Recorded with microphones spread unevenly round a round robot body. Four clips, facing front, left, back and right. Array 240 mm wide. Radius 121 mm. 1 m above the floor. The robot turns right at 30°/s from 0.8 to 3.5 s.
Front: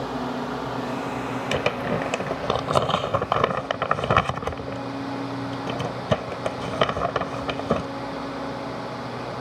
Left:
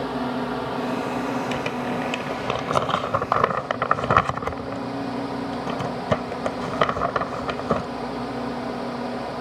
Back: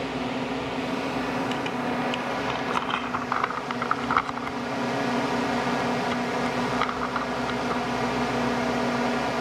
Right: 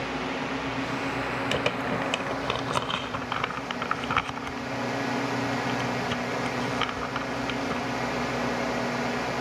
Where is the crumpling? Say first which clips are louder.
Left 2 dB, front 3 dB; 15° right; by 7.9 s 45° left.